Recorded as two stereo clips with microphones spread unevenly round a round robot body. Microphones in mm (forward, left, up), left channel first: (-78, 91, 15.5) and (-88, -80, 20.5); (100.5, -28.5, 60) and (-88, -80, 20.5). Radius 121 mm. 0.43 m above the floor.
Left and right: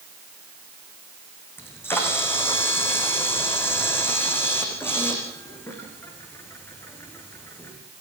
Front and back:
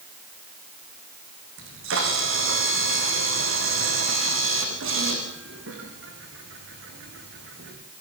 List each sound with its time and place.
1.6 s a camera shutter: 165° left, 6.5 m